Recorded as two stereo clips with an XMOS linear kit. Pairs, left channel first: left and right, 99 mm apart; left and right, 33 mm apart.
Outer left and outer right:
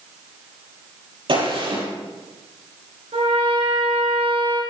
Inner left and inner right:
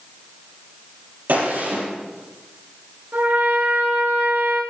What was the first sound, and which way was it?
A gunshot, 60° right (ahead or behind).